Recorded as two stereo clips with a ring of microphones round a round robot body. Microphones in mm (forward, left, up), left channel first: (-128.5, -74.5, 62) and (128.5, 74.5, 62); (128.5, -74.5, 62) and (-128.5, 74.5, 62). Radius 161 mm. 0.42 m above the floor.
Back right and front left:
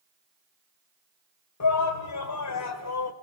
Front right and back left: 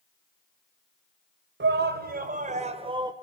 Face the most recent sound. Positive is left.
turn(degrees=-135)